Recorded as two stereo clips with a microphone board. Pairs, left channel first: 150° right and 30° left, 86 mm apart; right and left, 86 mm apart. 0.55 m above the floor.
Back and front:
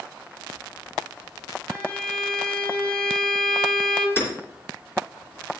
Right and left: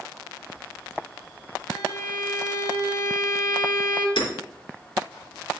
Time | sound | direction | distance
1.7 | a violin | 75° right | 1.8 m
4.2 | hammering | 85° right | 3.5 m